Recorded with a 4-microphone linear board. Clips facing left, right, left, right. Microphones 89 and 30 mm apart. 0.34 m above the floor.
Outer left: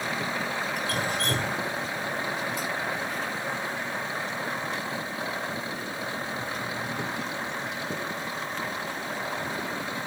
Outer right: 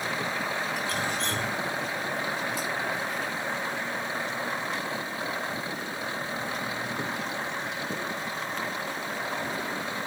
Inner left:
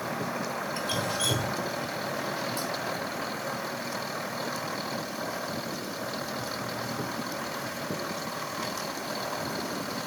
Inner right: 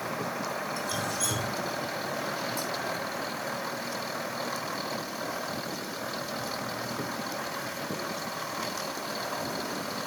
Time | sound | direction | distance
0.8 | dripping | 50° left (ahead or behind) | 1.7 m